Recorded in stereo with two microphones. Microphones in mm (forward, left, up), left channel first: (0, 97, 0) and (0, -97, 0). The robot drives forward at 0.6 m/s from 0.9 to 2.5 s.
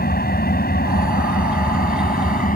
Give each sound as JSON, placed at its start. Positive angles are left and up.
{"t": 0.0, "sound": "an engine running", "side_deg": 50}